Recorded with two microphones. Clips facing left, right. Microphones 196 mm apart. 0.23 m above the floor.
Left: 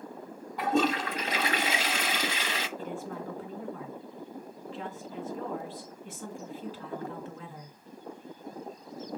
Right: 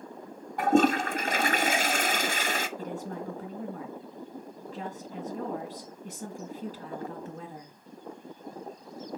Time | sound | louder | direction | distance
0.6 | a toilet flushing | right 4 dB | 50° right (ahead or behind) | 0.9 m
2.8 | a woman speaking | right 1 dB | 40° right (ahead or behind) | 2.5 m